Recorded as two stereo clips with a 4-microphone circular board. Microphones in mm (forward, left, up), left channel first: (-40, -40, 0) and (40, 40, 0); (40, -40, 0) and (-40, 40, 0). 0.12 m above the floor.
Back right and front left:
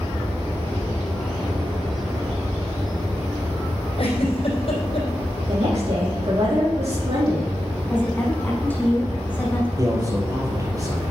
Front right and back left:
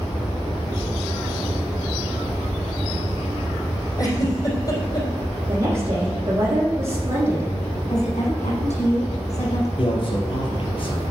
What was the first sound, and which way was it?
A giggle, 100° right.